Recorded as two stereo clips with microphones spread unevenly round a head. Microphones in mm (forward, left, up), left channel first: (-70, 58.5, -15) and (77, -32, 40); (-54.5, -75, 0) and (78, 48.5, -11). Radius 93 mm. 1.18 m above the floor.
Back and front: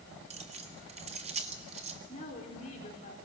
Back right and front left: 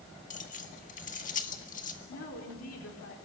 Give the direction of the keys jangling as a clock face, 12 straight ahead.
3 o'clock.